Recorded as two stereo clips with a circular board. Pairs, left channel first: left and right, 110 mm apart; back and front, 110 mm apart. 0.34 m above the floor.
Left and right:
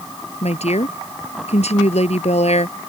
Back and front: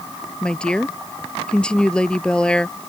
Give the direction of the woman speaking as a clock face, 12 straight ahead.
9 o'clock.